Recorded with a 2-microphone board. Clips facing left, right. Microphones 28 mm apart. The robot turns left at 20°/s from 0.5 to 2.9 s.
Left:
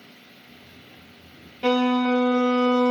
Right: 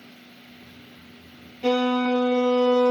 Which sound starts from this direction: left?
A violin, at 1.6 s.